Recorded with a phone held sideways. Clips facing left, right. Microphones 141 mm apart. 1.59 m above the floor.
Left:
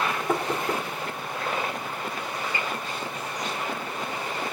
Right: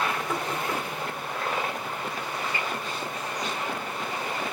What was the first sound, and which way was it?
Knocking, 55° left (ahead or behind).